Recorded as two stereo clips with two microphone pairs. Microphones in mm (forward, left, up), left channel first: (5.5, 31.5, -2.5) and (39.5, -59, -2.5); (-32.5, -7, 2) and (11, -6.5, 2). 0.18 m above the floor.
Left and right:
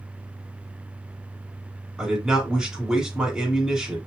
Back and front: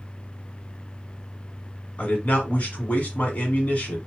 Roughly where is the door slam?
No door slam in this recording.